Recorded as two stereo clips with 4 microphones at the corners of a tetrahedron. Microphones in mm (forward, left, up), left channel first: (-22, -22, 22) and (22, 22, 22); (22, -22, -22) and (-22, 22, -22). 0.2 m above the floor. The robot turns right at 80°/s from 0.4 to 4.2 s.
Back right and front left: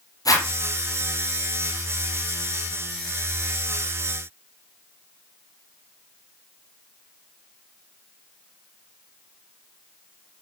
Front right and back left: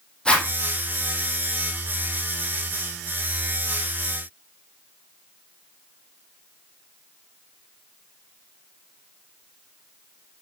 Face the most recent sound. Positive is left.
turn(degrees=-175)